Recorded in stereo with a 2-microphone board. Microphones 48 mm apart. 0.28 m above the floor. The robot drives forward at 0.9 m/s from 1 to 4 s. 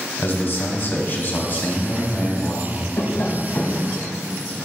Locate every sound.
0.2 s a man speaking: 45° left (ahead or behind), 1.3 m; by 2.9 s 25° left (ahead or behind), 2 m
3.0 s tapping: 60° left (ahead or behind), 0.7 m; by 3.9 s 35° left (ahead or behind), 1.1 m